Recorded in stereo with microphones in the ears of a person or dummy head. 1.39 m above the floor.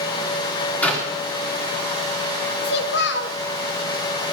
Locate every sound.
0.8 s a clap: 10° left (ahead or behind), 3.5 m
2.6 s a child speaking: 65° left (ahead or behind), 1.3 m